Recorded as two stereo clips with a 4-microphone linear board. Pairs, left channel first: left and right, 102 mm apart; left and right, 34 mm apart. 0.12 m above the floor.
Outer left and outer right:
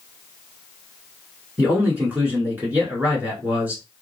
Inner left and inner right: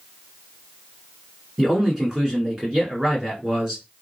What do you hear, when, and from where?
1.6 s a man speaking: 20° right (ahead or behind), 1.3 m